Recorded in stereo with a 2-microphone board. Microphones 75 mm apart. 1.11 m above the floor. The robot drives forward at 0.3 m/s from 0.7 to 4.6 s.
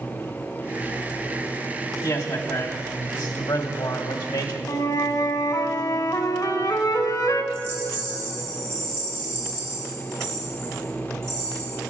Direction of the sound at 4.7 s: 60° left (ahead or behind).